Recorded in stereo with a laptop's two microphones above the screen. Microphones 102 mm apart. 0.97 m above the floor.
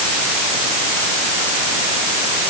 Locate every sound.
Only background noise.